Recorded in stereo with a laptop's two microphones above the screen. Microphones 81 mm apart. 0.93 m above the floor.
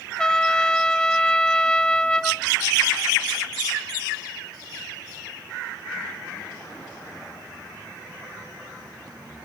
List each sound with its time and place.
0.2 s a trumpet: 10° left (ahead or behind), 0.6 m